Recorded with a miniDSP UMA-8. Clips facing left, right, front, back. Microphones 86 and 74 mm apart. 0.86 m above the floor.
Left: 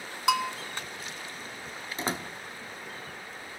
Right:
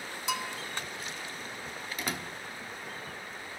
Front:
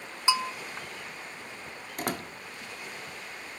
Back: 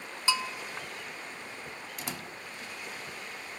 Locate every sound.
0.3 s a bell: 70° left, 1.0 m
2.0 s a door slam: 30° left, 1.3 m